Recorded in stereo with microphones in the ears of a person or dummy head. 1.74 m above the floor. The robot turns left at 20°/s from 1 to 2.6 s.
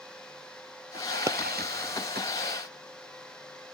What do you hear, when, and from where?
1.3 s a pop: 25° right (ahead or behind), 0.6 m